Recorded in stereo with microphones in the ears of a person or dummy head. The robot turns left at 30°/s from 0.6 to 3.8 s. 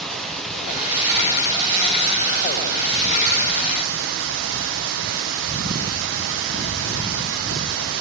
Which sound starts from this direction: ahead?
Running water, at 0.0 s.